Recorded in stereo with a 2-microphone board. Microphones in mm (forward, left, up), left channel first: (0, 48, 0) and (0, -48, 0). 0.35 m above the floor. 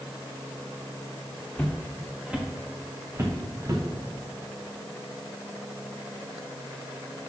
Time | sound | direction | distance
1.6 | footsteps | 10° left (ahead or behind) | 1.3 m